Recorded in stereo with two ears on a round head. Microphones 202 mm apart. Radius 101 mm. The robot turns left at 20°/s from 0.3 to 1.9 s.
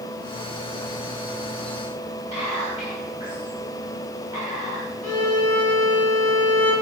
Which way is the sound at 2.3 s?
20° right (ahead or behind).